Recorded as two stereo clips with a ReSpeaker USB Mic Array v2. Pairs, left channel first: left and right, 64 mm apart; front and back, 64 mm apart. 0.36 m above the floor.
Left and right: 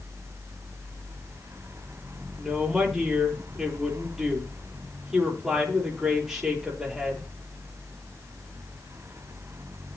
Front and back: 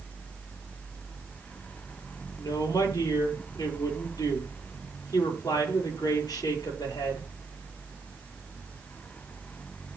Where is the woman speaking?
5° right, 9.5 m.